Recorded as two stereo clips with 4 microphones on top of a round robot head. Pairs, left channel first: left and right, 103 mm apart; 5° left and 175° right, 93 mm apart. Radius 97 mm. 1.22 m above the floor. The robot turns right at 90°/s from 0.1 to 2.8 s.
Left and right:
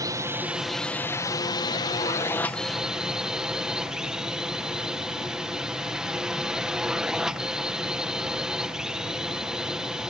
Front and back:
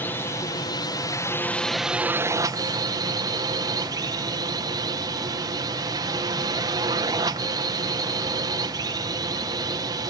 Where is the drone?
55° right; by 10.1 s 170° right.